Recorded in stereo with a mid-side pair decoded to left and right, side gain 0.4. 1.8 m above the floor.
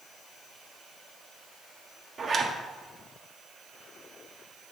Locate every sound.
2.2 s a zipper: 50° right, 1.4 m